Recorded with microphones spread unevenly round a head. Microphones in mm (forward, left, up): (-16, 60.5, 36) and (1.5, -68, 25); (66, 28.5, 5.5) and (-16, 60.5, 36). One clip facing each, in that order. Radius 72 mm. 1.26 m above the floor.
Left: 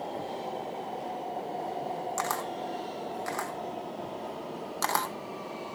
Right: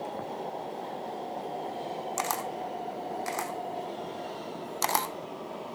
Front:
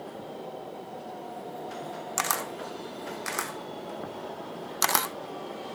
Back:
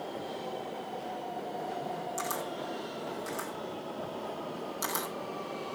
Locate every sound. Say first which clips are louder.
2.2 s a camera shutter: even, front 3 dB; 5° right, 0.5 m